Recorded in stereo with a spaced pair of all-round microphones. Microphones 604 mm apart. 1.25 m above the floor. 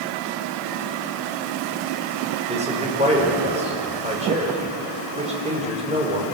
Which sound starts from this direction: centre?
A man speaking, at 2.5 s.